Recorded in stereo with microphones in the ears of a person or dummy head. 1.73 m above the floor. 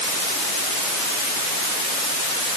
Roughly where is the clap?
No clap in this recording.